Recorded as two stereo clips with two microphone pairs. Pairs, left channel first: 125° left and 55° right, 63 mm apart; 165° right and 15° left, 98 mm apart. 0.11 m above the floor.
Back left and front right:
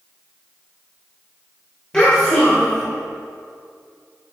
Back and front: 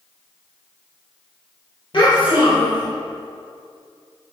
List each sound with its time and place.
1.9 s a child speaking: 160° right, 1.9 m